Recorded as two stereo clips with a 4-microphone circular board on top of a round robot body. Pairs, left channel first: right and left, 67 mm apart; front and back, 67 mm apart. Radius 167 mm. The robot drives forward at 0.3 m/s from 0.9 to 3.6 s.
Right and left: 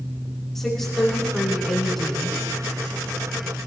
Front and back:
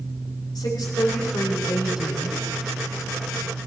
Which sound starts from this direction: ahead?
A woman speaking, at 0.6 s.